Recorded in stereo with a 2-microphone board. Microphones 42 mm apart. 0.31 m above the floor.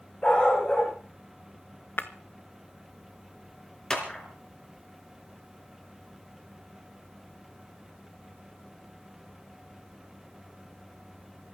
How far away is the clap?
About 3.5 m.